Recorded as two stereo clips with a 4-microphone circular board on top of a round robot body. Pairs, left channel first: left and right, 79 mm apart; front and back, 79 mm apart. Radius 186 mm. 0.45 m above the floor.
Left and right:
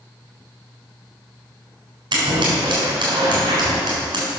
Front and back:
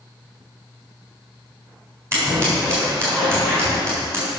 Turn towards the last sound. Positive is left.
turn(degrees=-120)